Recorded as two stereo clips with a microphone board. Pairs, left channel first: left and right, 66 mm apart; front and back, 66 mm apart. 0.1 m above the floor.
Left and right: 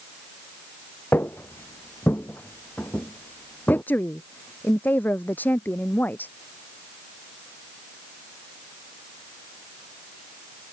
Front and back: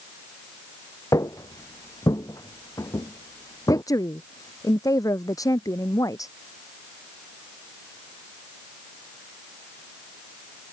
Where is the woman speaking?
25° left.